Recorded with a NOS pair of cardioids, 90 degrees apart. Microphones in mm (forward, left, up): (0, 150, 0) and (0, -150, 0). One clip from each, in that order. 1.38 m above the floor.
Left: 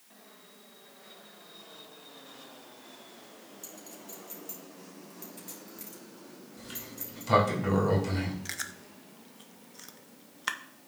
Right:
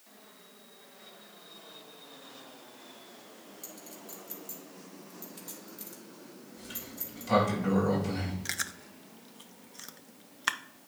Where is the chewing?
15° right, 0.5 m.